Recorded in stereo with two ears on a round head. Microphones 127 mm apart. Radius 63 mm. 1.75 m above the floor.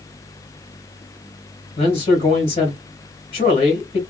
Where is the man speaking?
45° left (ahead or behind), 1.6 m.